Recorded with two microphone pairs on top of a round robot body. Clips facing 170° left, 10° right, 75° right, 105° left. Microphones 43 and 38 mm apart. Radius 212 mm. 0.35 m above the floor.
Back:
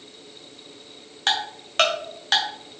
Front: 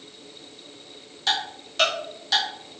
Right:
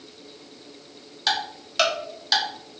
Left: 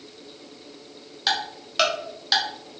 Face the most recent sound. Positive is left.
turn(degrees=-175)